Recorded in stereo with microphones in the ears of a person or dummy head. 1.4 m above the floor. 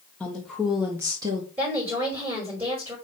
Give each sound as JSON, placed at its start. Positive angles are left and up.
{"t": 0.2, "sound": "a woman speaking", "side_deg": 5, "distance_m": 1.2}
{"t": 1.6, "sound": "a woman speaking", "side_deg": -15, "distance_m": 5.0}